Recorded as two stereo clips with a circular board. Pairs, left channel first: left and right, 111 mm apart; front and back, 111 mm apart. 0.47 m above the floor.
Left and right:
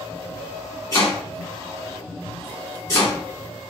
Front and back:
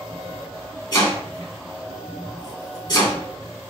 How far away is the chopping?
About 1.6 m.